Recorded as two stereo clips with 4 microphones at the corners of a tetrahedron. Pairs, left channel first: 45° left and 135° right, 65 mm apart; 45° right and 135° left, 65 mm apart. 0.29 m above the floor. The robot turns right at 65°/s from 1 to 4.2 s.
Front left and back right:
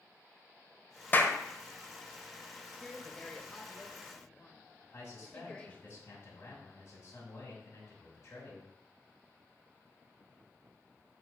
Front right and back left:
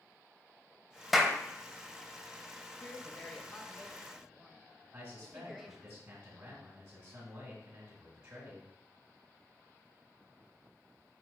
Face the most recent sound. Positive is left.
turn(degrees=95)